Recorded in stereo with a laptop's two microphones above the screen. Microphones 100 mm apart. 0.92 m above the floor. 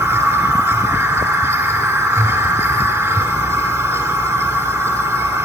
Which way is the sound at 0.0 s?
20° right (ahead or behind).